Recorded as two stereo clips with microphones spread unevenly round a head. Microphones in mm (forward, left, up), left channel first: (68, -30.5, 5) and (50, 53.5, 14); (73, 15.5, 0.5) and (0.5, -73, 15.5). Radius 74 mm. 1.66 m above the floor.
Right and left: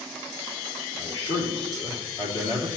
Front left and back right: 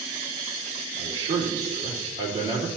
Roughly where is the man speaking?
Behind right.